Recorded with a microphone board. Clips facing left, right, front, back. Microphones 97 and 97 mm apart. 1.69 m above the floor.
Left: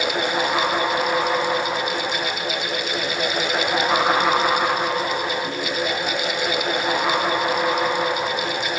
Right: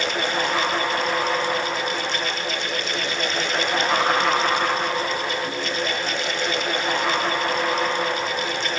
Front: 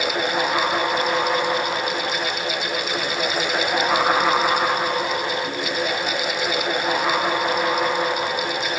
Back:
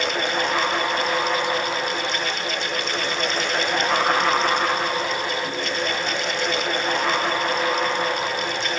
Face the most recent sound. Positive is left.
No sound to turn to.